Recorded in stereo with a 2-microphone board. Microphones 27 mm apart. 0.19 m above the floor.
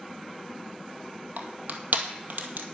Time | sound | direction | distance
1.4 | crushing | 80° right | 1.6 m